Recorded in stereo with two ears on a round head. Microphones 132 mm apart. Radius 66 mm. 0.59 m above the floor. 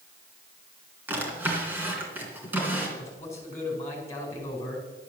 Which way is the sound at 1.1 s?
10° right (ahead or behind).